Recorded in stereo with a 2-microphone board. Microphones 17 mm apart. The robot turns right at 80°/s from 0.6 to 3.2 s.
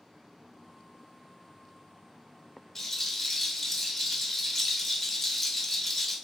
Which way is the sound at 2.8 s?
25° left (ahead or behind).